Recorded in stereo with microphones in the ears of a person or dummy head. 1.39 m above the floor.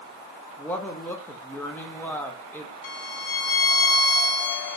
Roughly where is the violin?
Left.